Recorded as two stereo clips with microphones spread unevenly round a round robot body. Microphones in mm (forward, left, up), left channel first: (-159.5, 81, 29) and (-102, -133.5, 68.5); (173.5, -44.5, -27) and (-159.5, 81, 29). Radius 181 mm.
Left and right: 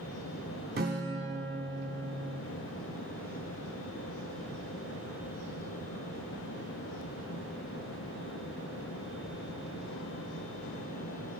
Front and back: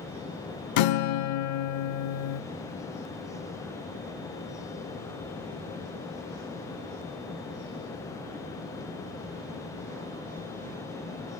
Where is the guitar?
20° right, 0.5 m.